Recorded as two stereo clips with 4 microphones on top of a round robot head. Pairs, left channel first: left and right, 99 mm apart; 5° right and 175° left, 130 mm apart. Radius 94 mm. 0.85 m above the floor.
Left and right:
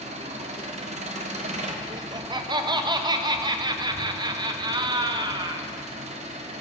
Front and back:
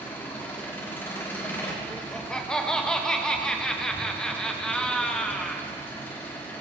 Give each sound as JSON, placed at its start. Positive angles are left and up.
{"t": 0.0, "sound": "an engine running", "azimuth_deg": -80, "distance_m": 1.1}
{"t": 1.9, "sound": "laughter", "azimuth_deg": -85, "distance_m": 0.8}